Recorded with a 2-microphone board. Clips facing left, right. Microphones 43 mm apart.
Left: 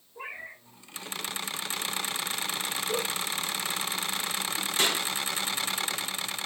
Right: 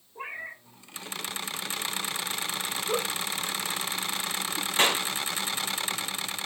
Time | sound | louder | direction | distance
0.1 | a cat meowing | right 2 dB | 20° right (ahead or behind) | 1.5 m
2.9 | a giggle | right 2 dB | 55° right (ahead or behind) | 0.9 m
4.8 | a clap | right 4 dB | 40° right (ahead or behind) | 1.1 m